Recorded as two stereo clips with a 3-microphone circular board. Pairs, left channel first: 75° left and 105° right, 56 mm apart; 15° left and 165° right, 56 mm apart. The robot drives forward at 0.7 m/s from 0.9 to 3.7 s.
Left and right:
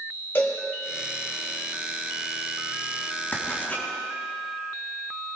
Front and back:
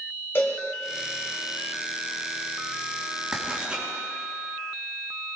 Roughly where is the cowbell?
Ahead left.